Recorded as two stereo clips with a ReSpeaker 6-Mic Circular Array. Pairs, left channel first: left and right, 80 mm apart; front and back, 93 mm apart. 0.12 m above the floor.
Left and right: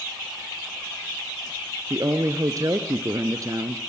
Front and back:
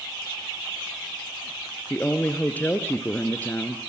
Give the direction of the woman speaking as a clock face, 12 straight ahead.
2 o'clock.